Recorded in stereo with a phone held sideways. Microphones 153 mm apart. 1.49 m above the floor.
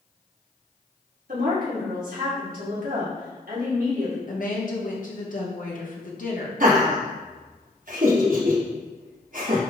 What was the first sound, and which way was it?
A woman speaking, 65° right (ahead or behind).